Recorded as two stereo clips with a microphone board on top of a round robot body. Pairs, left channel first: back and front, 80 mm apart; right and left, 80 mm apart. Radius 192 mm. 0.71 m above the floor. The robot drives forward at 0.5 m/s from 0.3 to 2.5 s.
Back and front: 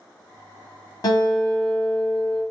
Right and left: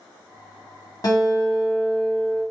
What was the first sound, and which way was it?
A guitar, 140° right.